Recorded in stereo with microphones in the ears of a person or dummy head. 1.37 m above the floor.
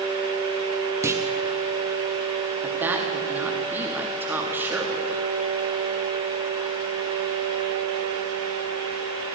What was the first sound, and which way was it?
A clunk, 10° right (ahead or behind).